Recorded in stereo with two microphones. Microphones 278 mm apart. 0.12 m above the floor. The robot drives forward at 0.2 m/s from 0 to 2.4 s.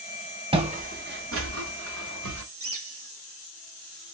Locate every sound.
0.5 s footsteps: 20° right (ahead or behind), 0.9 m; by 2.5 s 85° right, 1.0 m
2.6 s a bird: 55° right (ahead or behind), 1.5 m